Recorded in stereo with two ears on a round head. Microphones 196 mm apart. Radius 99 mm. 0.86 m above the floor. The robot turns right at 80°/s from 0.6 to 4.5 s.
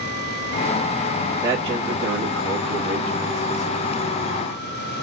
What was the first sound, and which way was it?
A man speaking, 175° right.